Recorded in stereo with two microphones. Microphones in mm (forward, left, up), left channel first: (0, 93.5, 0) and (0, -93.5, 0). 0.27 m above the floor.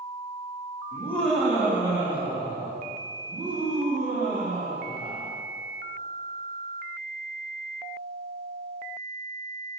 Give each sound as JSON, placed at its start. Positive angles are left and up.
{"t": 0.9, "sound": "laughter", "side_deg": 15, "distance_m": 1.0}